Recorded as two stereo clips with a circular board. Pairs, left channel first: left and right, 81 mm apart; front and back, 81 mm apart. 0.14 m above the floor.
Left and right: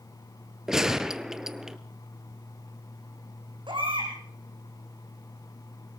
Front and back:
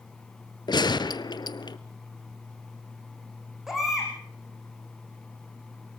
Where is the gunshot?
5° right, 0.9 m.